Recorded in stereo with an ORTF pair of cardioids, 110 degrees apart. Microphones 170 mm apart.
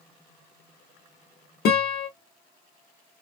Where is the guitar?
65° left, 1.0 m.